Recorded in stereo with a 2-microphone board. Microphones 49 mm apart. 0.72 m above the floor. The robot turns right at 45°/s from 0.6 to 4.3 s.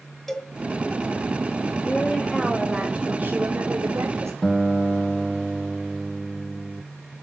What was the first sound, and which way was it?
A cowbell, 10° left (ahead or behind).